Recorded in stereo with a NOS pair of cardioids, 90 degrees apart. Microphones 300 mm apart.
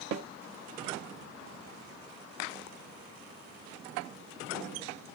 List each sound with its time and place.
0.1 s a snare drum: 65° right, 1.8 m